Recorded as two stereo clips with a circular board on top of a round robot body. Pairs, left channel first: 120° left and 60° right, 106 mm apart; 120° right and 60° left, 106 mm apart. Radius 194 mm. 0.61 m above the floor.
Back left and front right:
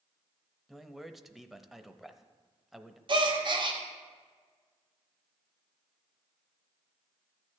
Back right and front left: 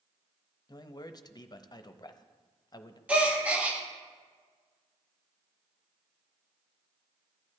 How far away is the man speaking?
About 0.8 m.